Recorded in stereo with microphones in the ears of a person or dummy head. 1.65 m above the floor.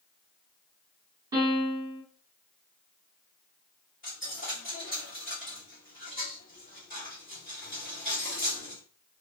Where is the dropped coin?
40° left (ahead or behind), 1.8 m.